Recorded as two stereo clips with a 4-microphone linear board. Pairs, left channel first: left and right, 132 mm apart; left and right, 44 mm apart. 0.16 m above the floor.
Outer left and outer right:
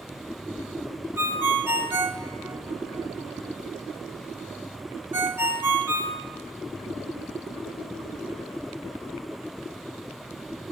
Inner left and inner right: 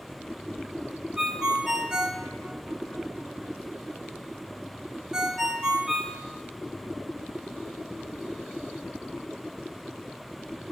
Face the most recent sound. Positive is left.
turn(degrees=-20)  # may be behind; listen again after turning